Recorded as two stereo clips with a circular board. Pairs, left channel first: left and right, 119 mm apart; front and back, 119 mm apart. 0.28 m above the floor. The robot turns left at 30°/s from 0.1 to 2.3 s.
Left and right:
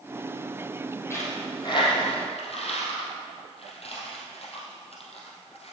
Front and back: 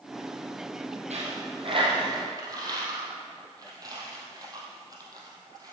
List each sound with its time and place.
1.1 s a dropped coin: 160° left, 3 m; by 5.7 s 120° left, 3 m